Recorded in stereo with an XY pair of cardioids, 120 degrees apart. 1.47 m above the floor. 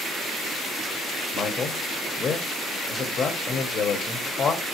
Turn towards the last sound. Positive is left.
turn(degrees=40)